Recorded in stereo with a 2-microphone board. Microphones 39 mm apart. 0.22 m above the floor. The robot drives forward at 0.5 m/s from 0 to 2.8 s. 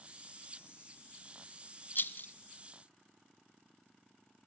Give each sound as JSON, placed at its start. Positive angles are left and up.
{"t": 1.9, "sound": "a rattle", "side_deg": 55, "distance_m": 0.6}